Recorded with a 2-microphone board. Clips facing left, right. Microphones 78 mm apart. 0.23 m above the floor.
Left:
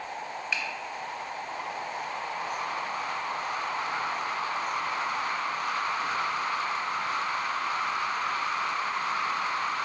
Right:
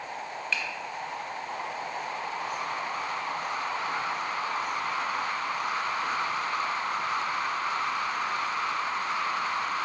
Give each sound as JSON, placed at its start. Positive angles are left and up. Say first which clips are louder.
{"t": 0.5, "sound": "a finger snap", "louder": "right 1 dB", "side_deg": 15, "distance_m": 0.8}